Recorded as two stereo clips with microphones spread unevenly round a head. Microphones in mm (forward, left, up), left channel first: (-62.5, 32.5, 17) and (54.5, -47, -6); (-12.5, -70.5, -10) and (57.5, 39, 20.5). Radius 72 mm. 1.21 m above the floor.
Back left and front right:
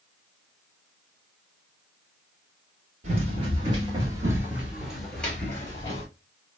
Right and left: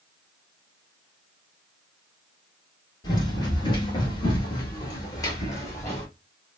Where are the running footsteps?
65° right, 1.5 m; by 6.1 s 160° left, 1.4 m.